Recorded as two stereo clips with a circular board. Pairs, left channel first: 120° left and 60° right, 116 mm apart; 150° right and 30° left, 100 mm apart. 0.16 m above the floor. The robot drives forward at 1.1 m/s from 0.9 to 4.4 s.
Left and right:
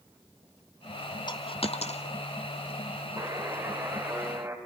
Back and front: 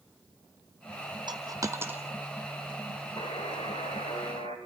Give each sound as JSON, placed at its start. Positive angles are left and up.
{"t": 1.3, "sound": "a dropped coin", "azimuth_deg": 70, "distance_m": 1.5}
{"t": 3.2, "sound": "a buzzer", "azimuth_deg": -120, "distance_m": 4.0}